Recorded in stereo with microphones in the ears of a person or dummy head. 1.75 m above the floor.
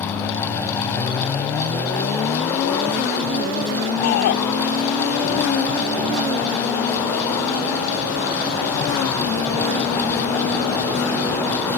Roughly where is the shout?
Left.